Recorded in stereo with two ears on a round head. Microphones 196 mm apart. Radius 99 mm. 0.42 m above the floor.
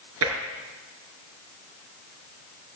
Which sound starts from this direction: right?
Tapping, at 0.2 s.